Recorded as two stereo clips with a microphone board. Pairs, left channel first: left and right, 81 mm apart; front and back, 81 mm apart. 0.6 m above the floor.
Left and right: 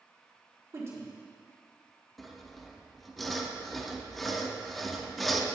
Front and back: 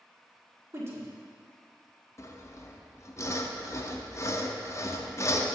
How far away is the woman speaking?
About 1.5 m.